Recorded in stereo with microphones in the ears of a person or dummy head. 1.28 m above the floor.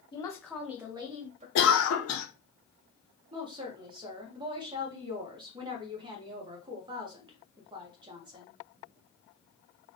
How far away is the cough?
About 0.7 m.